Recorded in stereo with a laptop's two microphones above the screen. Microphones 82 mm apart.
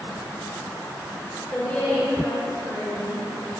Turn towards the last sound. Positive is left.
turn(degrees=20)  # may be behind; listen again after turning